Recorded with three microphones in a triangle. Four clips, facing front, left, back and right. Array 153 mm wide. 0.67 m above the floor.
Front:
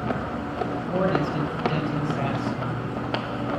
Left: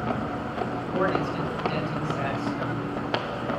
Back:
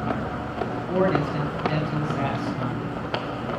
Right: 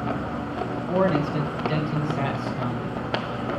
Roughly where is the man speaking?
Right.